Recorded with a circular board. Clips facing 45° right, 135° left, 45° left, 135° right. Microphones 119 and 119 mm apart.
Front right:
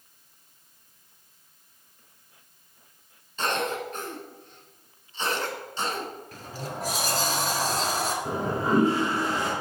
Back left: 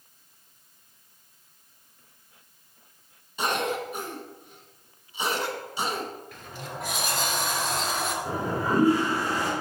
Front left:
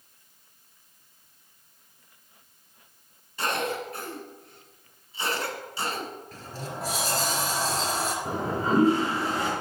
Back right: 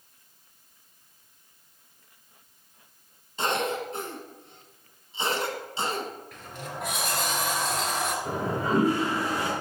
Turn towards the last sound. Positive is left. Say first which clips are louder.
# front right 1 dB, front left 2 dB
turn(degrees=5)